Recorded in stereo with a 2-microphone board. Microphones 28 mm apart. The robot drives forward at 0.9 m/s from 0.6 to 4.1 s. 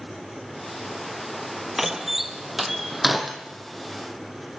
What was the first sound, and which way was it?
A door slam, 10° right (ahead or behind).